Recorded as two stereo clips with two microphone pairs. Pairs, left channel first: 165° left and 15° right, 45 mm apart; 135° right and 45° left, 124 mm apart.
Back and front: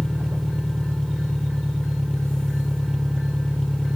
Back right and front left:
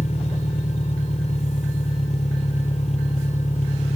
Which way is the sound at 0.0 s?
120° right.